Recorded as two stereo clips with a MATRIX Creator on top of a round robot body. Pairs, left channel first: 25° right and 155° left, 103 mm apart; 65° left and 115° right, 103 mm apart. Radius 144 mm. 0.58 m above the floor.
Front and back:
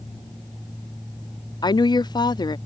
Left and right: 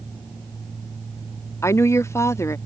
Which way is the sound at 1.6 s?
10° left.